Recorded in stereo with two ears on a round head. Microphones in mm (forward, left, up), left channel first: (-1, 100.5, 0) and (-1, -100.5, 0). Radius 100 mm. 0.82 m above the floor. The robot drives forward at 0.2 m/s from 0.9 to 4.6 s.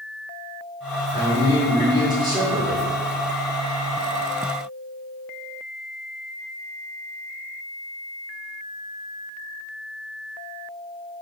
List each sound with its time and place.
1.1 s a man speaking: 20° right (ahead or behind), 2.5 m